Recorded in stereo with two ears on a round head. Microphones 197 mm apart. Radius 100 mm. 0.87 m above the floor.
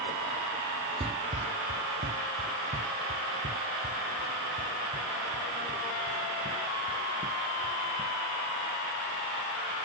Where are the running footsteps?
25° right (ahead or behind); by 8.2 s 35° right (ahead or behind).